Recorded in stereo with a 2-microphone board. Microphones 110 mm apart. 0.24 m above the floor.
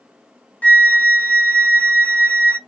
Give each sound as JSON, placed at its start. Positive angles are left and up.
{"t": 0.6, "sound": "a flute", "side_deg": 15, "distance_m": 0.9}